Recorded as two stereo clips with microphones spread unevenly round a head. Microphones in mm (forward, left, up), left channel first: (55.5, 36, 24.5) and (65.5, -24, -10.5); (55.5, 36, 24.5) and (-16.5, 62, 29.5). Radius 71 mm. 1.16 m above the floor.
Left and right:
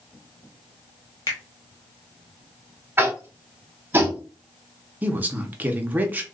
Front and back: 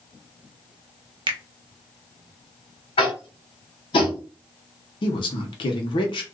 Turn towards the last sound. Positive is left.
turn(degrees=-25)